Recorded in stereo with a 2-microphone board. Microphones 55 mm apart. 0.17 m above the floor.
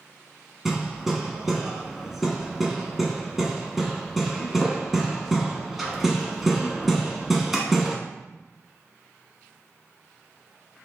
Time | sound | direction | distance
0.7 | hammering | 5° right (ahead or behind) | 0.7 m